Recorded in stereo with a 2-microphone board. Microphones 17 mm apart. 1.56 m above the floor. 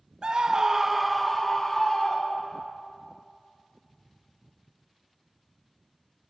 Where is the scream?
50° right (ahead or behind), 0.6 m; by 2.7 s 30° left (ahead or behind), 1.5 m.